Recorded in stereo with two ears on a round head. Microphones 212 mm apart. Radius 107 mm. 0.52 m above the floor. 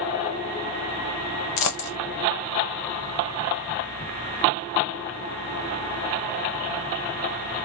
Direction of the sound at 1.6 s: 75° left (ahead or behind).